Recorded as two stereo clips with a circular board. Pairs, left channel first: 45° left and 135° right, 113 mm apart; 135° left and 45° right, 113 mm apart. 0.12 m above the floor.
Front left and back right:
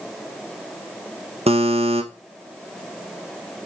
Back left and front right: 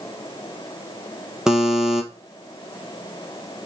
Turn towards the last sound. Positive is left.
turn(degrees=-130)